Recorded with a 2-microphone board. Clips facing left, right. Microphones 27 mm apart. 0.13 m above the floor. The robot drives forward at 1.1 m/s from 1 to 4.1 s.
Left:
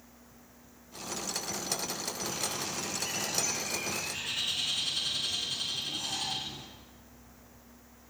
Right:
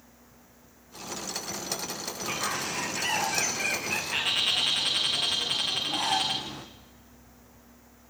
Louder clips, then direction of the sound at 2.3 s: Right 8 dB; 75° right (ahead or behind).